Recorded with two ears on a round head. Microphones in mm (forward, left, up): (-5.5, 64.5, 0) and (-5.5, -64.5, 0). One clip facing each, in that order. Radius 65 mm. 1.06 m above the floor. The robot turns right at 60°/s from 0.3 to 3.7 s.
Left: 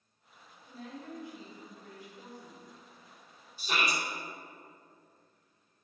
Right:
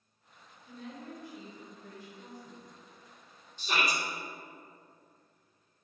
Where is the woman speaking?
10° right, 2.5 m; by 2.7 s 110° left, 2.5 m.